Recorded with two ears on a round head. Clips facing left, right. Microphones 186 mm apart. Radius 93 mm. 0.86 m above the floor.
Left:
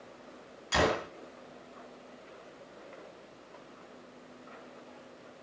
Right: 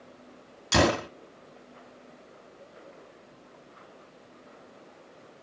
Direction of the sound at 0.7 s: 55° right (ahead or behind).